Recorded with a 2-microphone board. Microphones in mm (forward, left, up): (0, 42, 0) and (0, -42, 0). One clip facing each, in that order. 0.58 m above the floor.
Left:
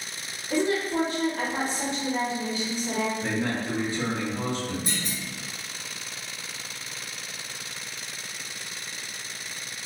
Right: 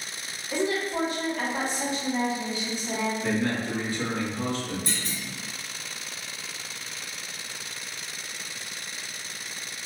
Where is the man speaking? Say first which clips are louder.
Right 1 dB; 25° left (ahead or behind), 1.1 m.